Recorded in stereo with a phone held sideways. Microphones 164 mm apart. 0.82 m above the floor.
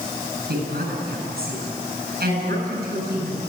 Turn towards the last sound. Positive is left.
turn(degrees=-70)  # may be behind; listen again after turning